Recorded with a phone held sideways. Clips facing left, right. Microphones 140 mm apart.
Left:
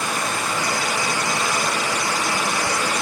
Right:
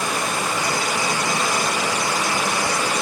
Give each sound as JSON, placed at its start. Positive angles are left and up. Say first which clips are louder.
{"t": 0.0, "sound": "running water", "louder": "right 1 dB", "side_deg": -20, "distance_m": 0.8}